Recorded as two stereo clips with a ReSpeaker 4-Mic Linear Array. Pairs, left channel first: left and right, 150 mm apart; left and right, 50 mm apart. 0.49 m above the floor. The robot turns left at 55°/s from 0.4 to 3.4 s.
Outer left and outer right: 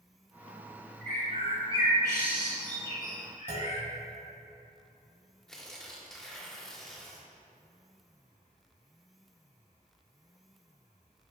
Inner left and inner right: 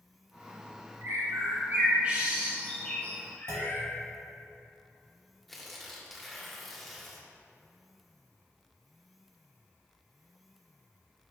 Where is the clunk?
80° right, 1.3 m.